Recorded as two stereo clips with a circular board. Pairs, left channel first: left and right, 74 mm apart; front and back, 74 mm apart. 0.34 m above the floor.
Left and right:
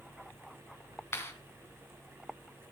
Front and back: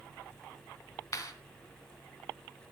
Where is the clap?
35° left, 3.5 m.